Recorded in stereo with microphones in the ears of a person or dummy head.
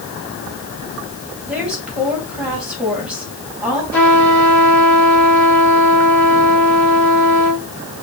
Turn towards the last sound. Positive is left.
turn(degrees=5)  # may be behind; listen again after turning